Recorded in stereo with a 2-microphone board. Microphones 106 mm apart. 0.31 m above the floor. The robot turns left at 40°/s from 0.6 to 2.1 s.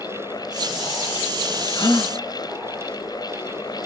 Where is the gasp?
40° left (ahead or behind), 2 m; by 2.1 s 25° left (ahead or behind), 2 m.